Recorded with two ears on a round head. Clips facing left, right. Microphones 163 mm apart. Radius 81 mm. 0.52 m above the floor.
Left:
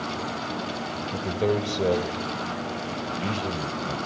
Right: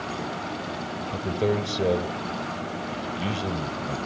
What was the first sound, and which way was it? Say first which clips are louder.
A man speaking: even; centre (ahead or behind).